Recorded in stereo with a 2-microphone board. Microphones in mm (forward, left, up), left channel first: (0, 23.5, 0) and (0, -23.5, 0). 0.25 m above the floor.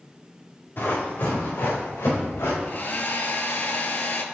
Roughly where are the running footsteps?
Left.